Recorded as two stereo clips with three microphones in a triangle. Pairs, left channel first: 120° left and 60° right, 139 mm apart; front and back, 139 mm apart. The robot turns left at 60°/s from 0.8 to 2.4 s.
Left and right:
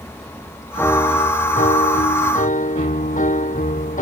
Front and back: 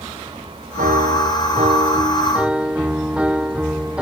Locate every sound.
0.8 s a piano: 165° right; by 4.0 s 95° left